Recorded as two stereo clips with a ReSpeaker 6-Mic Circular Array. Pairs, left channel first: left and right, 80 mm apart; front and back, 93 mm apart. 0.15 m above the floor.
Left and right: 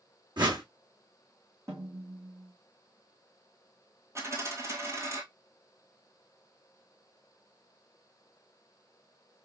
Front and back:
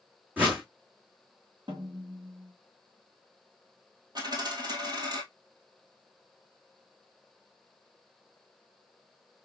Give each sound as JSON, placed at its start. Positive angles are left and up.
{"t": 0.4, "sound": "a whoosh", "azimuth_deg": -110, "distance_m": 2.5}
{"t": 1.7, "sound": "a snare drum", "azimuth_deg": -145, "distance_m": 3.0}
{"t": 4.2, "sound": "a dropped coin", "azimuth_deg": -140, "distance_m": 1.5}